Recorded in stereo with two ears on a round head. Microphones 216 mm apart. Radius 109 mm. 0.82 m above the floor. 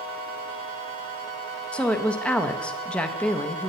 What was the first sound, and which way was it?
A woman speaking, 5° left (ahead or behind).